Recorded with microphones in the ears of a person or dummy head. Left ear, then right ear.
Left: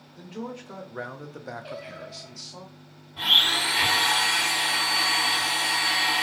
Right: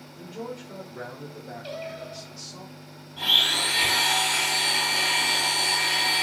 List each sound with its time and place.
0.1 s a man speaking: 20° left (ahead or behind), 1.1 m; by 2.6 s 30° left (ahead or behind), 0.8 m
1.6 s singing: 40° right (ahead or behind), 0.8 m
3.2 s a blender: 5° left (ahead or behind), 1.9 m